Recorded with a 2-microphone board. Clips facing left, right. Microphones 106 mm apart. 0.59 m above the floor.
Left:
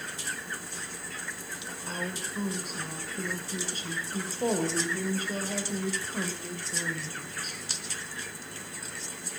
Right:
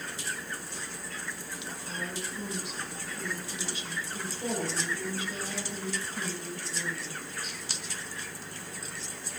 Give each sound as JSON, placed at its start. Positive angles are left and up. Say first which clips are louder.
{"t": 1.9, "sound": "a woman speaking", "louder": "left 3 dB", "side_deg": 40, "distance_m": 2.5}